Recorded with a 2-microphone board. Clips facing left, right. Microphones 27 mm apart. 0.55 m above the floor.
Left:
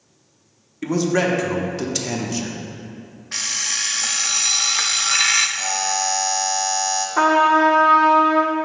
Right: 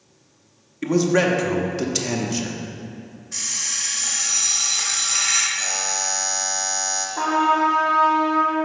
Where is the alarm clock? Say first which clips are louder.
Left 4 dB; 55° left (ahead or behind), 0.5 m.